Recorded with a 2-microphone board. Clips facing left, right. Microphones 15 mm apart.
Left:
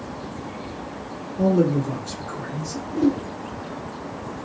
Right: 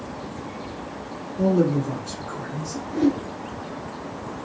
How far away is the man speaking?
About 1.7 m.